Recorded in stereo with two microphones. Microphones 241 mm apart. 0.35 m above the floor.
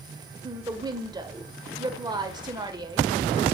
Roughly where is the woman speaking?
Centre.